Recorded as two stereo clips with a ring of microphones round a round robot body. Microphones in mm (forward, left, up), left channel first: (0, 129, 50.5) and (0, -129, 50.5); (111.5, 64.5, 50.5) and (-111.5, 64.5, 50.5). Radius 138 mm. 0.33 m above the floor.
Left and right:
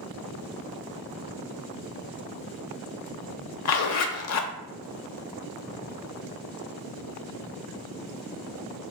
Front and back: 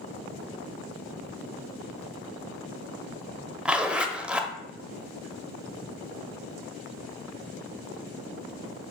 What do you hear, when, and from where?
3.6 s a zipper: 95° left, 0.6 m